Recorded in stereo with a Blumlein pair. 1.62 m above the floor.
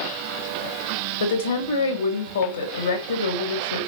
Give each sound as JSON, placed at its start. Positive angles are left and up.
{"t": 1.2, "sound": "a woman speaking", "azimuth_deg": 70, "distance_m": 2.5}